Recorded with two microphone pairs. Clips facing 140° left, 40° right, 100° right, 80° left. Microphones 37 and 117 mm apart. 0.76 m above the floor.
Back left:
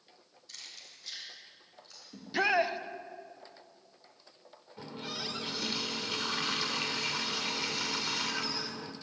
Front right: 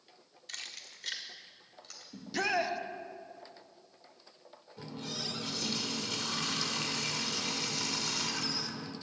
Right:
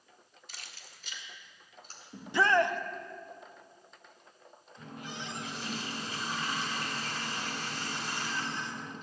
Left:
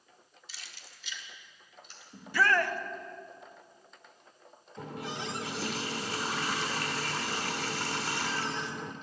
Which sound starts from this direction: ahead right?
Keys jangling, at 0.5 s.